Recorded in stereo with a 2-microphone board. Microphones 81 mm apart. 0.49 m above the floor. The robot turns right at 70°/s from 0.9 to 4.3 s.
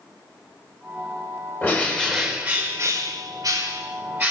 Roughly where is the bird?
Behind left.